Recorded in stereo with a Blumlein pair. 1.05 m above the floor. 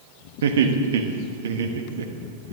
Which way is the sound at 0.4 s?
60° right.